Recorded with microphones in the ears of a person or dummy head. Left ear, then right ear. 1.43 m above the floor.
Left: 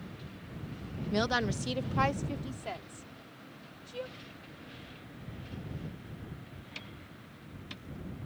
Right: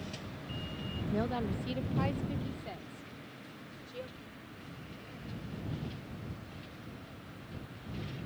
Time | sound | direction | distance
1.1 | a woman speaking | 75° left (ahead or behind) | ?